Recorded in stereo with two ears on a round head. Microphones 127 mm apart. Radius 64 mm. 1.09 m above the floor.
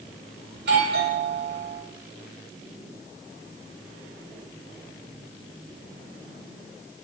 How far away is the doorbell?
About 10 m.